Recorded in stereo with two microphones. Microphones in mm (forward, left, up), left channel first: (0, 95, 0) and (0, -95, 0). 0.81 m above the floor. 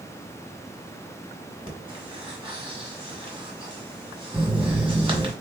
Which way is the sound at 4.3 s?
Centre (ahead or behind).